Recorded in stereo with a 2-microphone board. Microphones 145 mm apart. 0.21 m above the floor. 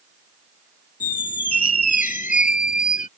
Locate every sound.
1.0 s a squeak: 75° left (ahead or behind)